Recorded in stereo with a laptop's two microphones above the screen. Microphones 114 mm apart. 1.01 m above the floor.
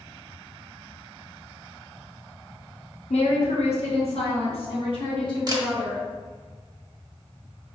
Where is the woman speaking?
70° left (ahead or behind), 0.9 m; by 6.0 s 45° left (ahead or behind), 1.9 m.